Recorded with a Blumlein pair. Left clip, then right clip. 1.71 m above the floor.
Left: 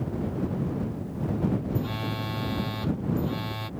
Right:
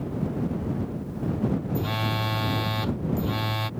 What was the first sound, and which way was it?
A phone buzzing, 20° right.